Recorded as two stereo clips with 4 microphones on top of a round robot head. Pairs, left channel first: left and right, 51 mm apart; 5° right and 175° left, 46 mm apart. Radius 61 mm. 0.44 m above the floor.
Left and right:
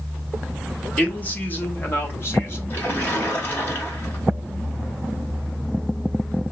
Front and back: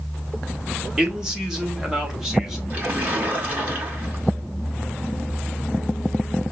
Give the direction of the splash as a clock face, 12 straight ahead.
8 o'clock.